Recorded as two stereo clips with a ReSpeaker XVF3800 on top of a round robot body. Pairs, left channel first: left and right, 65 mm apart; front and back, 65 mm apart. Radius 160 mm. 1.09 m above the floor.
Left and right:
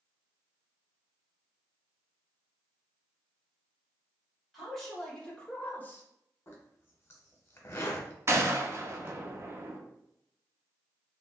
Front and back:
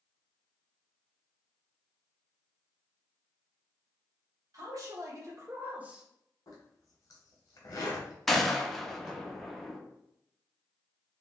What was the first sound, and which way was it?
A man speaking, straight behind.